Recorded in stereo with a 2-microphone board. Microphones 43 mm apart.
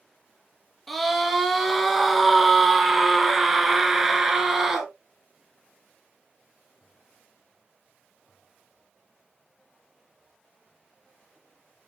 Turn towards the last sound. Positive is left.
turn(degrees=-10)  # may be behind; listen again after turning